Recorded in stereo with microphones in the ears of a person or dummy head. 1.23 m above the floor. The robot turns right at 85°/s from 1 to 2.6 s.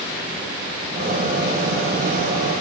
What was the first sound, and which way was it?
Only background noise.